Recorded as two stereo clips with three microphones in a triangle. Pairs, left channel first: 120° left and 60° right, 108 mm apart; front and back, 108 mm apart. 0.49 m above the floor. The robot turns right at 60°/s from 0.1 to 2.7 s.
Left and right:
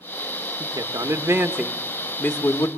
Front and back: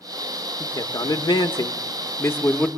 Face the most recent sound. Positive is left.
turn(degrees=80)